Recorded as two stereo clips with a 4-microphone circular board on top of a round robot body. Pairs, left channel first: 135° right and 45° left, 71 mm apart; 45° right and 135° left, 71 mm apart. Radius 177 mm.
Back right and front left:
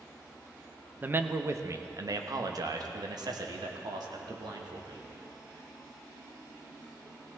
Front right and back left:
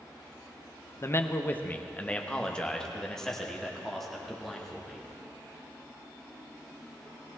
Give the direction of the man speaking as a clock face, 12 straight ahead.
12 o'clock.